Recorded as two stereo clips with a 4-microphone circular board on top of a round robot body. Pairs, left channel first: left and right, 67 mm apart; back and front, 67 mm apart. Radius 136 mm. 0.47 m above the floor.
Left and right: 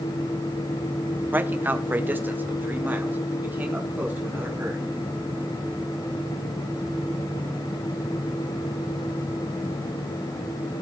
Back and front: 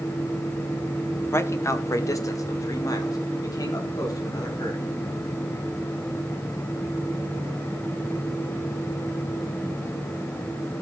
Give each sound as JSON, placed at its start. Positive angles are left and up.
{"t": 1.3, "sound": "a man speaking", "azimuth_deg": -145, "distance_m": 1.2}